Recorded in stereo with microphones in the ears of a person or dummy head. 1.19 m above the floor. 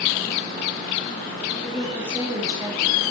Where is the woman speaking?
Centre (ahead or behind), 1.9 m; by 3.0 s 30° right (ahead or behind), 2 m.